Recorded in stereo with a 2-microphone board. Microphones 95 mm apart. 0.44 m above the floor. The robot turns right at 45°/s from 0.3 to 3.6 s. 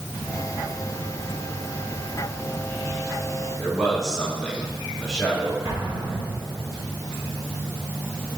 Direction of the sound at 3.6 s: Centre (ahead or behind).